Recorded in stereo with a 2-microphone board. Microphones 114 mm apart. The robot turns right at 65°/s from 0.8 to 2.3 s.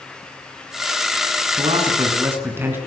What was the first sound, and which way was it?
A man speaking, 65° right.